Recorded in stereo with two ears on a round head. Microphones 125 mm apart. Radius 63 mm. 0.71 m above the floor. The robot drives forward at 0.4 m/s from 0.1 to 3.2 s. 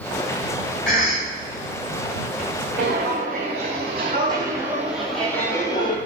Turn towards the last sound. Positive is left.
turn(degrees=35)  # may be behind; listen again after turning